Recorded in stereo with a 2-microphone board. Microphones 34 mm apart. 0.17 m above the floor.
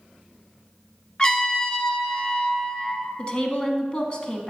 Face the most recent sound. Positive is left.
turn(degrees=30)  # may be behind; listen again after turning